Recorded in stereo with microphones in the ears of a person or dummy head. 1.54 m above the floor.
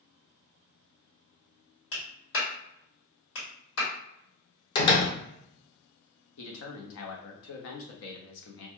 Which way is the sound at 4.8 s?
25° left (ahead or behind).